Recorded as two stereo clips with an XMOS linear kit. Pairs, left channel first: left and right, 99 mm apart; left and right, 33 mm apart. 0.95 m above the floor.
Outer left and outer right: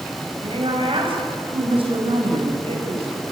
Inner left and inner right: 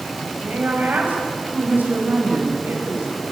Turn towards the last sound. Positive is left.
turn(degrees=-75)  # may be behind; listen again after turning